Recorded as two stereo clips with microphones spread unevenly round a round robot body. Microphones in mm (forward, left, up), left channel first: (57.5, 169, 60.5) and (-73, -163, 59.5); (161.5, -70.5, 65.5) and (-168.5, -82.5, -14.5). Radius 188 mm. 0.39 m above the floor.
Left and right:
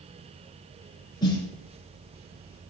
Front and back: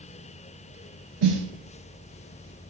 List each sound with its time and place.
1.2 s a snare drum: 150° left, 1.4 m